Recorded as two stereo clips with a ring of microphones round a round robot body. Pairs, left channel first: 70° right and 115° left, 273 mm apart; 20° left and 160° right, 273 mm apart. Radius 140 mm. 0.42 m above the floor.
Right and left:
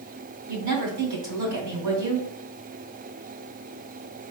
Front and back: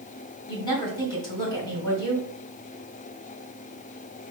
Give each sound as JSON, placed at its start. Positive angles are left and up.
{"t": 0.5, "sound": "a woman speaking", "azimuth_deg": 95, "distance_m": 2.5}